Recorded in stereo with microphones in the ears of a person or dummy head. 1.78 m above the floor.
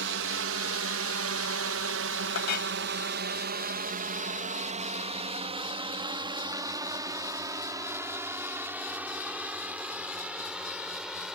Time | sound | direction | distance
0.0 | a drone | 65° right (ahead or behind) | ?
2.4 | a clink | 60° left (ahead or behind) | ?